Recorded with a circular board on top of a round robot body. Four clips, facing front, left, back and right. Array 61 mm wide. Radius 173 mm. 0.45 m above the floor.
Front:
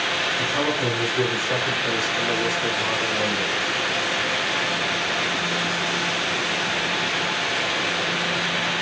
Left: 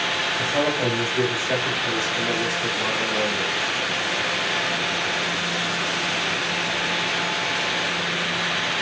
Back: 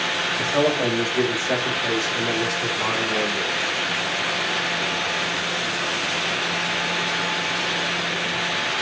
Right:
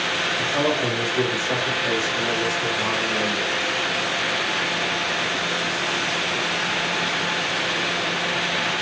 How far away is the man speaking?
About 4.5 m.